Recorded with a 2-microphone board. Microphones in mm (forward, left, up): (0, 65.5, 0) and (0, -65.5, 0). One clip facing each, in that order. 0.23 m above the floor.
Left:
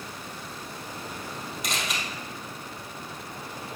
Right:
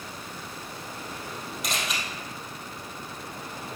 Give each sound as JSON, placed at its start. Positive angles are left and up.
{"t": 1.6, "sound": "a camera shutter", "side_deg": 0, "distance_m": 2.5}